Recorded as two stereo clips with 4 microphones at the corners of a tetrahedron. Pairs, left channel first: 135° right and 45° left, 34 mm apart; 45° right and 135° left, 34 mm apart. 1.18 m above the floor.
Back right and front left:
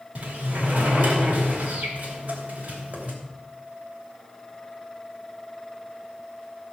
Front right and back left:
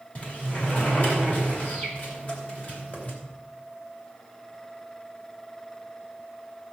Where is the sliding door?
Straight ahead, 3 m.